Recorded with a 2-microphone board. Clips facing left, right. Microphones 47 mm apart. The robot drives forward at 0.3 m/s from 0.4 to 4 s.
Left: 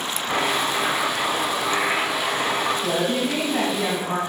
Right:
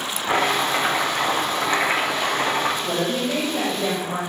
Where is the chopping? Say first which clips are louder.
Right 3 dB; 40° right (ahead or behind), 1.0 m; by 2.7 s 35° right (ahead or behind), 1.1 m.